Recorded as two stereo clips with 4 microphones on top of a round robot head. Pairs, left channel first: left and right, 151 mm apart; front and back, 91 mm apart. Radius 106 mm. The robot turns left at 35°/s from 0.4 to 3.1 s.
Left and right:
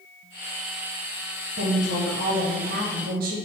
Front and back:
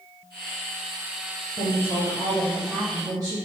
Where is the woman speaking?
60° right, 0.6 m; by 3.4 s 115° right, 0.6 m.